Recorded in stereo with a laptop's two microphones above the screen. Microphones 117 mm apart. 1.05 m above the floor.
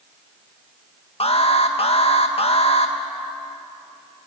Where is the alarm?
55° left (ahead or behind), 1.5 m.